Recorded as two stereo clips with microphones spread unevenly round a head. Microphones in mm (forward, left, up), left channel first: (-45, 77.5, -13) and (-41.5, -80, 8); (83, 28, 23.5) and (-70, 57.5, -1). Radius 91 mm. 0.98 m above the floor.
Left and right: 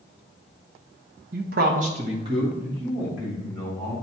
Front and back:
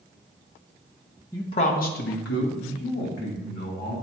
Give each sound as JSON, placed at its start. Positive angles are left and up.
{"t": 1.3, "sound": "a man speaking", "azimuth_deg": -90, "distance_m": 0.8}